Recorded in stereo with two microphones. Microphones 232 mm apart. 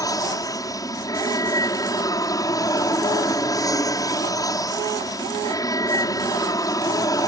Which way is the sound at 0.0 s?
15° left (ahead or behind).